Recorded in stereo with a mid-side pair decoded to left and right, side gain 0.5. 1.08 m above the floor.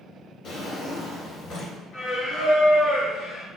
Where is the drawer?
65° left, 1.5 m.